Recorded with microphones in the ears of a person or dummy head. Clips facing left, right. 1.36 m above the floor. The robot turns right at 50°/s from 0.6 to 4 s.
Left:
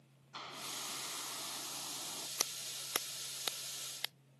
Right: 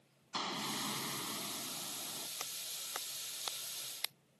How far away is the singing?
No singing in this recording.